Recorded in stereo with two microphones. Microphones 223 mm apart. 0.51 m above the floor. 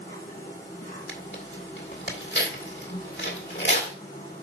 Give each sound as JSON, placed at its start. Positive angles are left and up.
{"t": 0.0, "sound": "an insect", "side_deg": 35, "distance_m": 3.0}
{"t": 1.1, "sound": "tearing paper", "side_deg": 50, "distance_m": 1.8}